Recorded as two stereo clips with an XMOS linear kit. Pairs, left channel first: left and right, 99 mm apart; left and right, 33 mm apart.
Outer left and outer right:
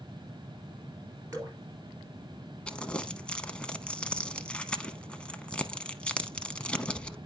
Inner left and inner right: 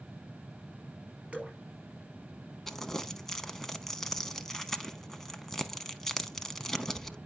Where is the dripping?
35° right (ahead or behind), 3 m.